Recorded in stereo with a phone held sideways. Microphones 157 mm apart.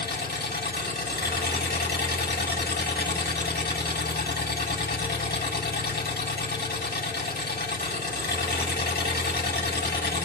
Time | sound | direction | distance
0.0 | an engine running | 80° left | 6.5 m